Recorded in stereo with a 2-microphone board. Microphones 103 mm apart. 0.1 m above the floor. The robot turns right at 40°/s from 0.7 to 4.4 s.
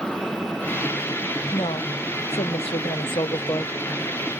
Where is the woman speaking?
55° left; by 3.8 s 150° left.